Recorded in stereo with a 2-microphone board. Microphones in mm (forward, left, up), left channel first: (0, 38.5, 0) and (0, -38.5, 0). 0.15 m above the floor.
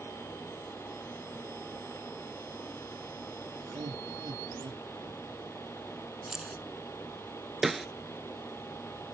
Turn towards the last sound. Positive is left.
turn(degrees=-5)  # may be behind; listen again after turning